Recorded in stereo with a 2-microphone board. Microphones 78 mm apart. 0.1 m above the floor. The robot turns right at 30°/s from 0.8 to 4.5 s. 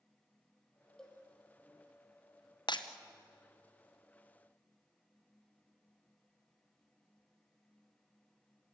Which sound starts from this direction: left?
Breaking glass, at 2.7 s.